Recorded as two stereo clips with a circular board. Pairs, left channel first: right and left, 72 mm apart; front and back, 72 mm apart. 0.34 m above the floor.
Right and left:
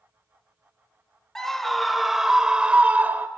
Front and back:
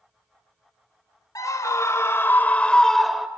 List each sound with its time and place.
1.4 s a scream: 10° right, 1.4 m; by 3.3 s 105° left, 1.0 m